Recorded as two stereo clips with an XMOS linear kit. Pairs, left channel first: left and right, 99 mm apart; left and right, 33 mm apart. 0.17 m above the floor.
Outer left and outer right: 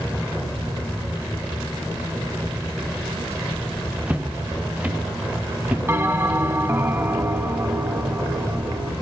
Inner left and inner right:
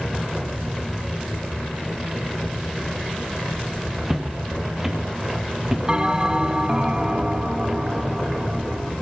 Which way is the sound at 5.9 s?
25° right (ahead or behind).